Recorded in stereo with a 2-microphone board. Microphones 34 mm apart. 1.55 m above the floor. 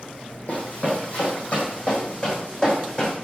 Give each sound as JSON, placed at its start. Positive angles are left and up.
{"t": 0.5, "sound": "running footsteps", "side_deg": 40, "distance_m": 4.0}